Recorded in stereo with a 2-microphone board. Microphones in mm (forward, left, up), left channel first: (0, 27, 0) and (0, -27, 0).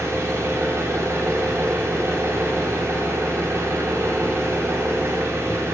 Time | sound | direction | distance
0.0 | an engine running | 45° right (ahead or behind) | 4.5 m